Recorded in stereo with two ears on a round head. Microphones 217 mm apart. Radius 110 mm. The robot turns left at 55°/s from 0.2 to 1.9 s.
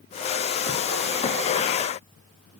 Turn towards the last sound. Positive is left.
No sound to turn to.